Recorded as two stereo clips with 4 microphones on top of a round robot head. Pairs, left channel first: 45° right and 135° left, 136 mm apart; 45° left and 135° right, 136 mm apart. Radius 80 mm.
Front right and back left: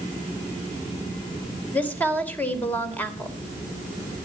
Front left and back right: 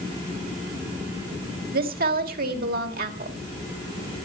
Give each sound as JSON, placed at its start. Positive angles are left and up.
{"t": 1.7, "sound": "a woman speaking", "azimuth_deg": -125, "distance_m": 2.5}